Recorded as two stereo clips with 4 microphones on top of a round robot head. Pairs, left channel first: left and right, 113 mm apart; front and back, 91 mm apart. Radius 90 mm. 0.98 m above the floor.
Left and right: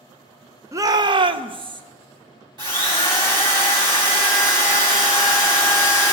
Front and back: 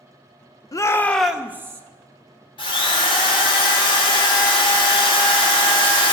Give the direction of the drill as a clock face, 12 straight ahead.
1 o'clock.